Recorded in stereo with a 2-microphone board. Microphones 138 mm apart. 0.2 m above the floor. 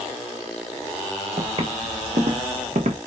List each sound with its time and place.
1.4 s footsteps: 50° right (ahead or behind), 1.2 m; by 3.0 s 65° right (ahead or behind), 0.9 m